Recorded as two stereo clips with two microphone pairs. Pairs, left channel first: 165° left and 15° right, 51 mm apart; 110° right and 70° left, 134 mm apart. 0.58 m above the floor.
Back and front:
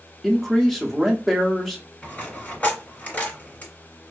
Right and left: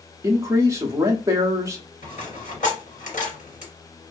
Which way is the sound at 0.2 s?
90° left.